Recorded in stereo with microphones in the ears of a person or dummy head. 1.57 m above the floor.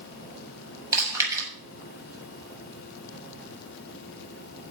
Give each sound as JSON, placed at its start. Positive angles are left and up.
{"t": 0.9, "sound": "chewing", "side_deg": -20, "distance_m": 5.0}